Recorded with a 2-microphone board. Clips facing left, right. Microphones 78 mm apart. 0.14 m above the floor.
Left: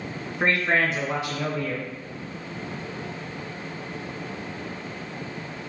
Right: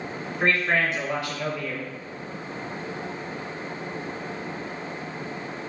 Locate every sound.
0.4 s a man speaking: 20° left (ahead or behind), 1.2 m